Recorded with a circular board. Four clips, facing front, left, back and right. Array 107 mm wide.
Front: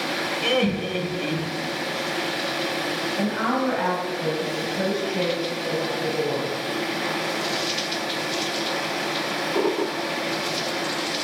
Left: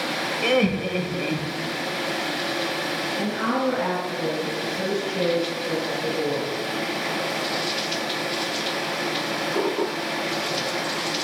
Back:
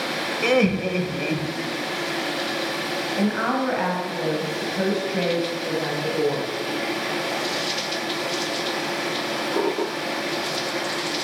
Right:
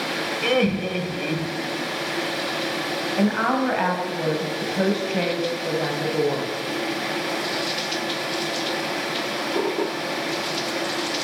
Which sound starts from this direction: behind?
Laughter, at 0.4 s.